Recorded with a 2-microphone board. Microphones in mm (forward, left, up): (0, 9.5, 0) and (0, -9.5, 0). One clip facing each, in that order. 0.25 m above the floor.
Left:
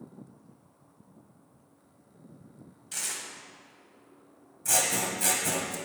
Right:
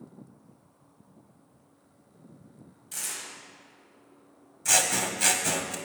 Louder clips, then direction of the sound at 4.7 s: Right 3 dB; 40° right (ahead or behind).